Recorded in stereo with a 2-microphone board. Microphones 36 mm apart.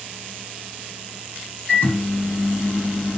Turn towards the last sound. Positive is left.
turn(degrees=45)  # may be behind; listen again after turning